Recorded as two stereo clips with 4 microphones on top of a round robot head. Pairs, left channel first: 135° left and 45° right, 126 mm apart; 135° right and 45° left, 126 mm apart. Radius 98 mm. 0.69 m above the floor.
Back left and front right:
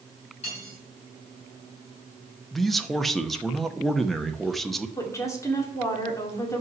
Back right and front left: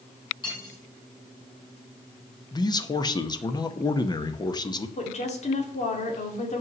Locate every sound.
0.4 s cutlery clinking: 170° left, 4.5 m
2.5 s a man speaking: 140° right, 0.9 m
5.0 s a woman speaking: 160° right, 2 m